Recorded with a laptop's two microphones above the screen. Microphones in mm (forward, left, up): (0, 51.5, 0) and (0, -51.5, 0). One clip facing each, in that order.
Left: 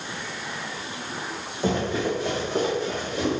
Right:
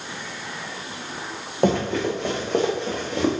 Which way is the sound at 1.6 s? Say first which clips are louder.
Right 4 dB; 55° right (ahead or behind).